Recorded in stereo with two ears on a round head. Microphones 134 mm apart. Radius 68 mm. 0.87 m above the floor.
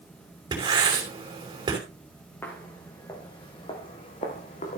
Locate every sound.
0.5 s writing: 30° right (ahead or behind), 5 m
2.4 s footsteps: 15° left (ahead or behind), 4.5 m; by 4.8 s 50° left (ahead or behind), 4.5 m